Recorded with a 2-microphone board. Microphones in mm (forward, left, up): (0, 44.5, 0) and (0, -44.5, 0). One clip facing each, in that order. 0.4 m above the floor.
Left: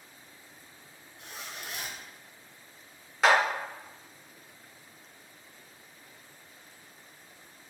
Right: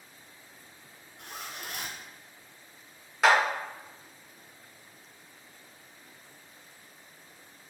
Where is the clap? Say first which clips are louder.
Right 1 dB; centre (ahead or behind), 0.7 m.